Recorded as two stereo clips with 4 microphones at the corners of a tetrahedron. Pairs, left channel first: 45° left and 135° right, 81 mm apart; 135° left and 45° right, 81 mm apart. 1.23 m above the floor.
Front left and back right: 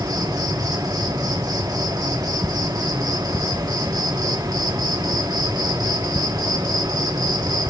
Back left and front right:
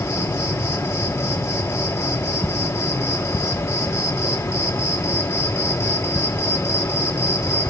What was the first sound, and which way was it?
An insect, 175° right.